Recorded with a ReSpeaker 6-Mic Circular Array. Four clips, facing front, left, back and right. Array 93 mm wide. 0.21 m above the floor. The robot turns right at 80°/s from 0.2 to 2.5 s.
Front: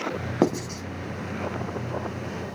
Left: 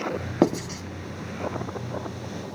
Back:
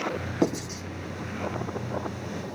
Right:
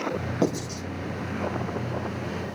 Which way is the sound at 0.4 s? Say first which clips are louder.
Left 5 dB, front 3 dB; 50° left.